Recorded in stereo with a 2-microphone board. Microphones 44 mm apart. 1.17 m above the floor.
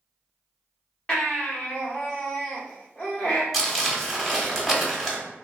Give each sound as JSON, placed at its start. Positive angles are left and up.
{"t": 1.1, "sound": "a baby crying", "side_deg": 35, "distance_m": 1.1}
{"t": 3.5, "sound": "crumpling", "side_deg": 0, "distance_m": 1.1}